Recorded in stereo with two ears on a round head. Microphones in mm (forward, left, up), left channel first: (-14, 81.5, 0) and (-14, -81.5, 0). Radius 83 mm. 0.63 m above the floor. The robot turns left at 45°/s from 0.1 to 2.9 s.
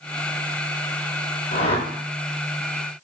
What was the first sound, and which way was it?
A whoosh, 40° left (ahead or behind).